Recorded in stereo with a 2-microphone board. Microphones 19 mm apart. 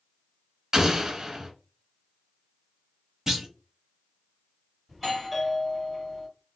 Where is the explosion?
30° right (ahead or behind), 0.9 m.